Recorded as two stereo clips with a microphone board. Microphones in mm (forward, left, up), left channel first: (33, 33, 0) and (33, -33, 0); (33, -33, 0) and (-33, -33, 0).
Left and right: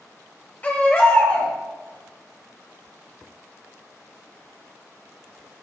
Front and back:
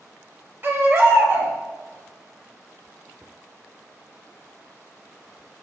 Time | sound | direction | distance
0.6 | a baby crying | 145° left | 1.5 m